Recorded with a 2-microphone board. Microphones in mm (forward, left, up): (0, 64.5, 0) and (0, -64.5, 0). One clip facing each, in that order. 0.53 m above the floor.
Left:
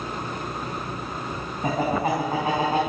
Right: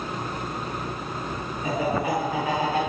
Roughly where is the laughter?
Left.